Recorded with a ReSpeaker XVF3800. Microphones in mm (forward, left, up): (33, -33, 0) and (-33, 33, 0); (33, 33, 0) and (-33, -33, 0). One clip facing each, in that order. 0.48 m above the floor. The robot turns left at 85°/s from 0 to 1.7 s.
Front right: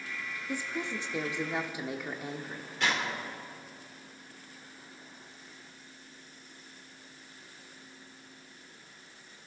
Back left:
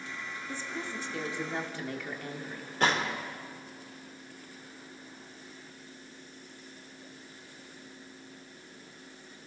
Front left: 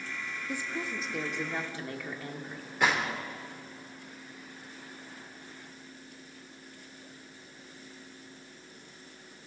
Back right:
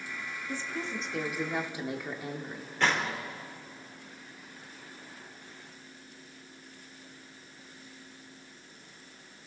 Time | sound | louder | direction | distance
0.5 | a woman speaking | front right 4 dB, even | 5° left | 1.2 m
2.8 | a gunshot | back left 4 dB, front left 1 dB | 120° left | 1.7 m